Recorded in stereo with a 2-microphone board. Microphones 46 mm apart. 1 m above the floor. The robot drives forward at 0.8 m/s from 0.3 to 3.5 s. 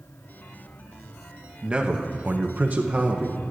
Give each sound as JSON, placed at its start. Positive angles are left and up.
{"t": 1.6, "sound": "a man speaking", "side_deg": -20, "distance_m": 1.0}